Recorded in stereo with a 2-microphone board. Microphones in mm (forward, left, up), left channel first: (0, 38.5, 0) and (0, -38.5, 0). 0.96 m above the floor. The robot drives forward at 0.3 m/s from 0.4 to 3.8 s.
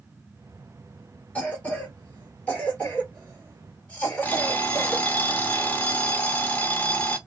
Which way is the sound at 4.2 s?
25° left (ahead or behind).